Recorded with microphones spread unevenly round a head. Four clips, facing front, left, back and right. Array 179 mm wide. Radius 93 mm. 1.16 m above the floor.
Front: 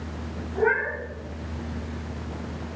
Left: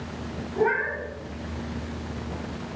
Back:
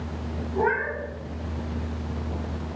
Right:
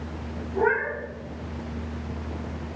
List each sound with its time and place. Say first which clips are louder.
0.6 s a cat meowing: right 1 dB, front 1 dB; 140° right, 4 m